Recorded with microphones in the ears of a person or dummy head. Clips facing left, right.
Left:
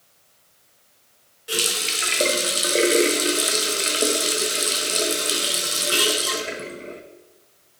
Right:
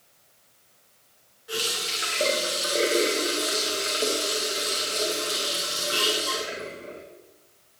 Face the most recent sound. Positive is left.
turn(degrees=30)  # may be behind; listen again after turning